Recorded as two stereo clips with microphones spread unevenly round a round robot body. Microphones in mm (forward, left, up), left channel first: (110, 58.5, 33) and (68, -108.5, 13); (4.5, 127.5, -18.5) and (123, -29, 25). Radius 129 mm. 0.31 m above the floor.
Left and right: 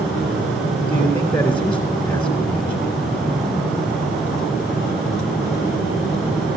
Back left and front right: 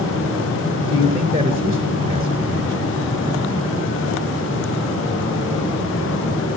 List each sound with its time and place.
0.9 s a man speaking: 5° right, 3 m